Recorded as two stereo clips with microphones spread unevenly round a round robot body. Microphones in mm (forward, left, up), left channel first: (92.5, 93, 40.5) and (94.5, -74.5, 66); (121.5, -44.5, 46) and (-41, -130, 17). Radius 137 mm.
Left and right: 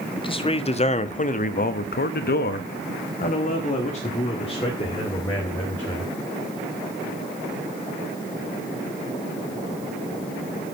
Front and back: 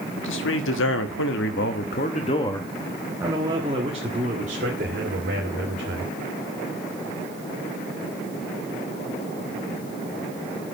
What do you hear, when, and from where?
0.2 s a man speaking: 35° left, 1.6 m; by 6.2 s 160° left, 3 m